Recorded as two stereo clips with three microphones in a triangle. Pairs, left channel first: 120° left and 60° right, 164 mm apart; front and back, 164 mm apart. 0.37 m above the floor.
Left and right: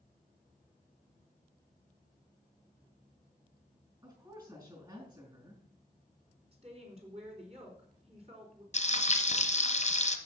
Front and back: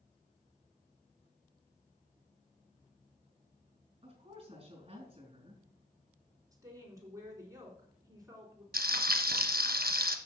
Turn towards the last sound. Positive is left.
turn(degrees=165)